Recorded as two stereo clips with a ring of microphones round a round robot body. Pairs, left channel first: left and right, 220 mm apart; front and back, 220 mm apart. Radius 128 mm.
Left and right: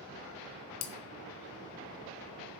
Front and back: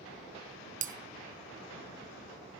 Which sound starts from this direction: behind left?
Breaking glass, at 0.8 s.